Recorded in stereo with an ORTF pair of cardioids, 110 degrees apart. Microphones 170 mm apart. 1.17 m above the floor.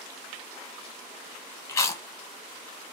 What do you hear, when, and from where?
1.7 s chewing: 15° left, 0.7 m